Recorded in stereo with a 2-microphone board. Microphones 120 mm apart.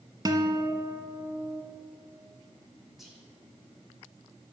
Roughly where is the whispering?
Centre.